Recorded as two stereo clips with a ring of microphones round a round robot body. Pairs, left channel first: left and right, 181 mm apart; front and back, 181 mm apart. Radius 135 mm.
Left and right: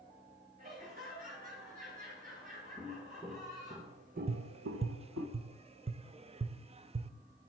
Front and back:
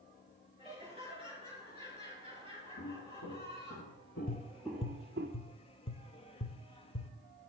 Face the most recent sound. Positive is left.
turn(degrees=-45)